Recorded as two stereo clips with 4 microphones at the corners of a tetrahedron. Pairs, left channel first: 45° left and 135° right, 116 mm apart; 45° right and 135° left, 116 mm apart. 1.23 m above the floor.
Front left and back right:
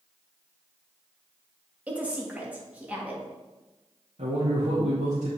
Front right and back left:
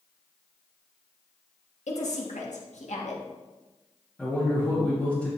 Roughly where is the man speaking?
Behind right.